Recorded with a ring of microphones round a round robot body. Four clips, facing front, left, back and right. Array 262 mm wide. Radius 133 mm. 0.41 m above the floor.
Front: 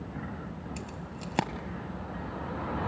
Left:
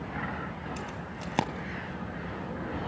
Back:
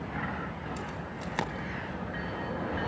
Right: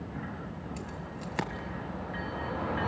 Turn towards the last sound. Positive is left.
turn(degrees=50)